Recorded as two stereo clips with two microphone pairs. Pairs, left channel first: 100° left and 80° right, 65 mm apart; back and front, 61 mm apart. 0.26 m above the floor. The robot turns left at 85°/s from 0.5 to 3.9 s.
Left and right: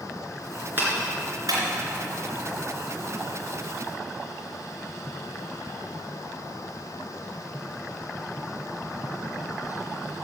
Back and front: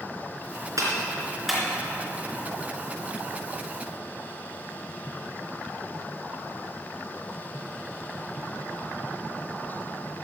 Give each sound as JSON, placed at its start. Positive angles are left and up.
{"t": 0.8, "sound": "a clap", "azimuth_deg": -25, "distance_m": 3.5}